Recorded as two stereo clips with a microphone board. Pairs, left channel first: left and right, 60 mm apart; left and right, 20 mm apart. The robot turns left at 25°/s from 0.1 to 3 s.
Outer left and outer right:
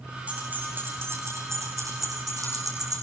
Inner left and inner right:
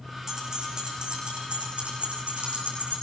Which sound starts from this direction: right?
Keys jangling, at 0.3 s.